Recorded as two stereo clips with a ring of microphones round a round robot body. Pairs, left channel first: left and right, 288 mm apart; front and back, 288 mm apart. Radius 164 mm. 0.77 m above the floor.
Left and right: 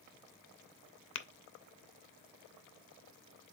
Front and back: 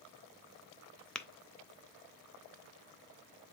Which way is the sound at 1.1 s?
90° left.